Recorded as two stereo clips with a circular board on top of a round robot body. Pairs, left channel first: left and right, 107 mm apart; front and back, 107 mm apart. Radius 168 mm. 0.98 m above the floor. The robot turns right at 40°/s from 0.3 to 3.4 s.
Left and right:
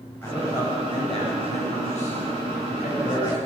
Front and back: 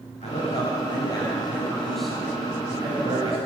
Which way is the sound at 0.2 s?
20° left.